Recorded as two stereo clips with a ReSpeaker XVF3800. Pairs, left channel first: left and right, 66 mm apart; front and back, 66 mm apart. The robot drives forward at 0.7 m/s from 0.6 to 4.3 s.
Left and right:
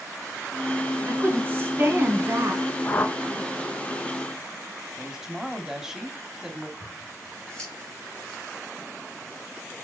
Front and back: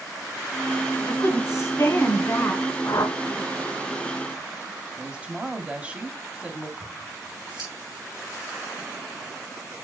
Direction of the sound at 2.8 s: 30° left.